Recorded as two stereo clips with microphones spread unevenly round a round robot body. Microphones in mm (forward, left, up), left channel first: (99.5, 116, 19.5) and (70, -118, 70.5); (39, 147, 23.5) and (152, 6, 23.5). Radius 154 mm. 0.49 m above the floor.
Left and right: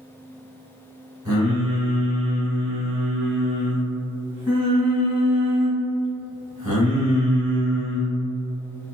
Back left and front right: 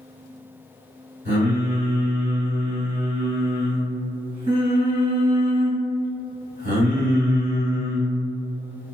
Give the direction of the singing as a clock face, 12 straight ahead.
1 o'clock.